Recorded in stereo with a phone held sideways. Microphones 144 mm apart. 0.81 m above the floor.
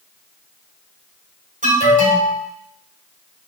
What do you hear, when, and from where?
1.6 s an alarm: 65° right (ahead or behind), 3 m